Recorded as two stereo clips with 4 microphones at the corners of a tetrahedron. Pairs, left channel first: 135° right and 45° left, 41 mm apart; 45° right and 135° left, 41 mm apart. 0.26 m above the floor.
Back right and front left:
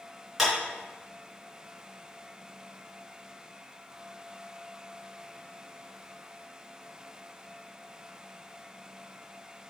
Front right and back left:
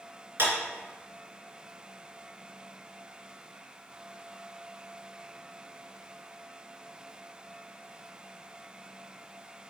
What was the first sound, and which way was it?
A clap, 135° left.